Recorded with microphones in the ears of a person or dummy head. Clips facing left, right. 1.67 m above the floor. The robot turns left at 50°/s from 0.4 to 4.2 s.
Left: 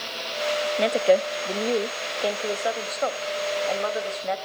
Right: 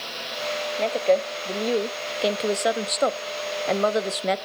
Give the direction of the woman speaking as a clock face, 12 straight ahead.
11 o'clock.